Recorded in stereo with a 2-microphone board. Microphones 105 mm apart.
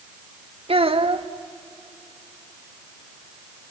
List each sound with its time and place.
0.7 s a child speaking: 60° right (ahead or behind), 1.2 m